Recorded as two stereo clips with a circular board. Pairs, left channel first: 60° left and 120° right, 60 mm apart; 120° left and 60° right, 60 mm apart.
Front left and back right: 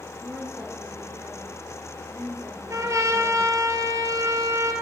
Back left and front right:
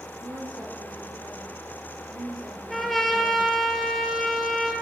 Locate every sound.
0.2 s a woman speaking: 55° right, 9 m
2.7 s a trumpet: 150° right, 2.5 m